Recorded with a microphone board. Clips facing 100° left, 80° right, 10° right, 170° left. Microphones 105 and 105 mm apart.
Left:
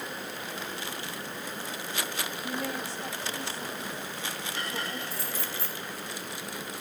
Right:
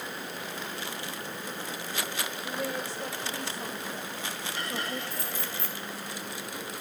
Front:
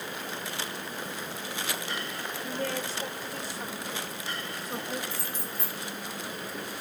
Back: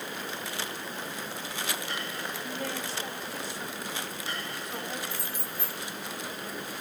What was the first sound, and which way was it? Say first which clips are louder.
A woman speaking: right 1 dB, front 6 dB; 55° right.